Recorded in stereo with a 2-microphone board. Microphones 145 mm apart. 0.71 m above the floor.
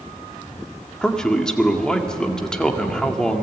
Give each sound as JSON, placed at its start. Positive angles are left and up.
{"t": 1.0, "sound": "a man speaking", "side_deg": 5, "distance_m": 1.9}